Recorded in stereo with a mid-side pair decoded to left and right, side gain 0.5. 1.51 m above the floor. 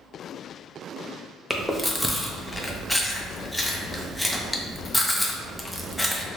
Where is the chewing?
5° left, 0.6 m.